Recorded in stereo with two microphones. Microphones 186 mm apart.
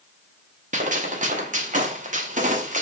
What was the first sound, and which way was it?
A gunshot, 45° right (ahead or behind).